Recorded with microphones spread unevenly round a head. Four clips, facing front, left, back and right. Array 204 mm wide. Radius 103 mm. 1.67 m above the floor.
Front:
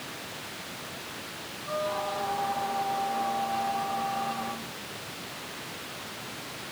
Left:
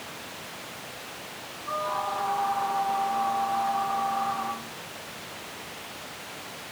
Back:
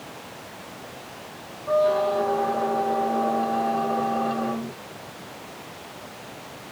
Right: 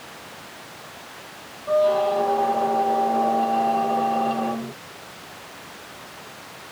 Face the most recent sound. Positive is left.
turn(degrees=-135)